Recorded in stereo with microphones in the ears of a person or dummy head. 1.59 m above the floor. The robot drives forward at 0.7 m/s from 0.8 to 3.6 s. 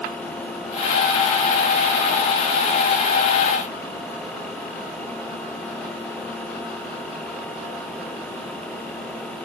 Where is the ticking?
No ticking in this recording.